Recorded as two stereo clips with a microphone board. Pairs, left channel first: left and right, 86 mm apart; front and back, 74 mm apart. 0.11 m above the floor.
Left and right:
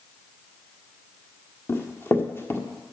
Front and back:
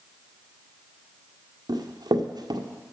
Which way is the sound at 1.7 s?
155° left.